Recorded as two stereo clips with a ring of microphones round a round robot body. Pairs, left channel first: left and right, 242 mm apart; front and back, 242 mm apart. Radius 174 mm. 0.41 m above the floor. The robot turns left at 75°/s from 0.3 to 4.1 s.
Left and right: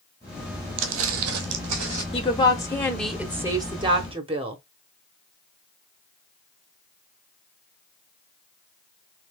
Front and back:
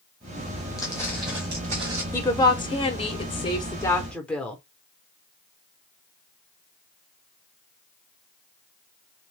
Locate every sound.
0.8 s footsteps: 75° right, 0.5 m; by 2.0 s 140° right, 1.1 m
2.1 s a woman speaking: 70° left, 0.8 m; by 4.6 s 80° right, 0.8 m